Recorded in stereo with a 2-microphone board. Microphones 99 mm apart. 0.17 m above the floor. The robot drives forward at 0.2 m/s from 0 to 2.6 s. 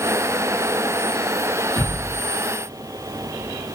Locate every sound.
1.8 s a thud: 60° right (ahead or behind), 1.3 m; by 2.2 s 65° right (ahead or behind), 1.3 m